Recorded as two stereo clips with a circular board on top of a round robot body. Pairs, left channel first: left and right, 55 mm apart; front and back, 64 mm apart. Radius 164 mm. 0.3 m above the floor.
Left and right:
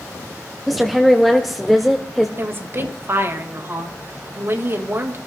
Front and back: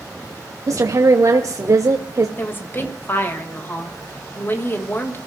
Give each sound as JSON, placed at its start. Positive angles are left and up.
{"t": 0.7, "sound": "a woman speaking", "azimuth_deg": 180, "distance_m": 1.3}
{"t": 2.4, "sound": "a woman speaking", "azimuth_deg": -50, "distance_m": 2.5}